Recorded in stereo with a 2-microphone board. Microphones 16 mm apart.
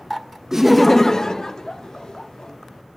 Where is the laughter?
35° right (ahead or behind), 0.5 m; by 2.5 s 50° left (ahead or behind), 2.5 m.